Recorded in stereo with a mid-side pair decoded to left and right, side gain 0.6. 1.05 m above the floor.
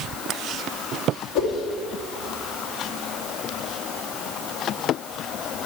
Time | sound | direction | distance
1.4 | a whoosh | 60° left | 2 m